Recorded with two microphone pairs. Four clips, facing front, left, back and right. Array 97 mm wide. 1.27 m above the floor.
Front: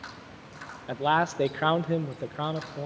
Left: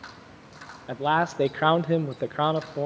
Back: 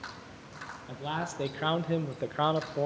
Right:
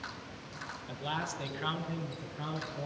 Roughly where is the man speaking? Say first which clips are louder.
Left 14 dB, front 11 dB; ahead left.